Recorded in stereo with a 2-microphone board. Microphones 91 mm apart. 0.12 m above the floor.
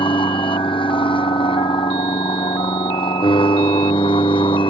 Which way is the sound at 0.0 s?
70° left (ahead or behind).